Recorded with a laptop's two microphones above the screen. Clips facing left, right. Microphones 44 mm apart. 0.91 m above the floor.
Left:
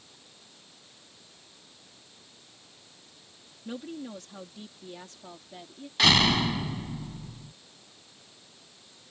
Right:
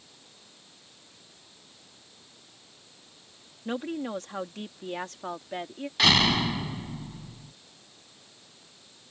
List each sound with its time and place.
3.6 s a woman speaking: 45° right (ahead or behind); by 5.9 s 70° right (ahead or behind)
6.0 s a door slam: 5° right (ahead or behind)